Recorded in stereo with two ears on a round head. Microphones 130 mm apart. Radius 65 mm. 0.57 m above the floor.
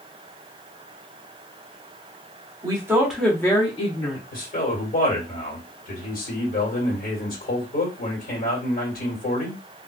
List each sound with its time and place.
2.6 s a woman speaking: 30° right (ahead or behind), 1.1 m; by 4.2 s 50° left (ahead or behind), 1.4 m
4.3 s a man speaking: 60° left (ahead or behind), 1.6 m